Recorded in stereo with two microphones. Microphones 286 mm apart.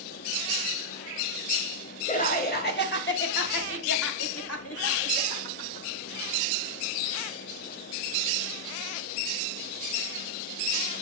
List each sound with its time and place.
2.1 s laughter: 25° left (ahead or behind), 1.6 m; by 5.9 s 50° left (ahead or behind), 2.5 m